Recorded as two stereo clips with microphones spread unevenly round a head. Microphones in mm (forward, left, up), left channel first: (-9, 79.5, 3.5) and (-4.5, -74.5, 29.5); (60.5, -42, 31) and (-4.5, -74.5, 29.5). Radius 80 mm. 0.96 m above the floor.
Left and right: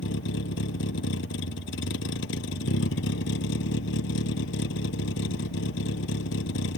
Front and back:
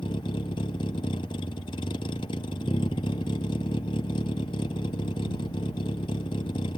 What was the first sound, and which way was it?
A vehicle, 75° left.